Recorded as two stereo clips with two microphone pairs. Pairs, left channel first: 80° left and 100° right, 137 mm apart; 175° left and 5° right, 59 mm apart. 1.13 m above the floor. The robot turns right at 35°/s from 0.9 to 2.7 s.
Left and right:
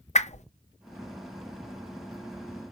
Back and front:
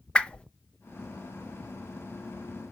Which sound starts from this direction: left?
A whoosh, at 0.1 s.